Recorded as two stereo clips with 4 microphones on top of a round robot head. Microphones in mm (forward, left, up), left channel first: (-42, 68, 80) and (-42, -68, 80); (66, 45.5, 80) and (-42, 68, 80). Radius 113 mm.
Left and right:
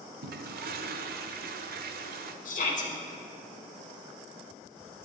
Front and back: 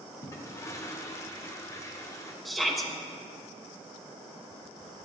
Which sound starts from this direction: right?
A toilet flushing, at 0.2 s.